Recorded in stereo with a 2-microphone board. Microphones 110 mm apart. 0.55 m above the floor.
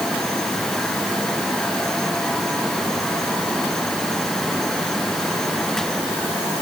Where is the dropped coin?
No dropped coin in this recording.